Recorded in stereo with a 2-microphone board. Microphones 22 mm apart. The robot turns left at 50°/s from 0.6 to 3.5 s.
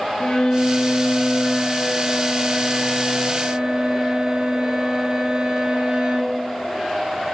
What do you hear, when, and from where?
0.2 s a violin: 60° left, 1.3 m; by 6.4 s 85° right, 1.3 m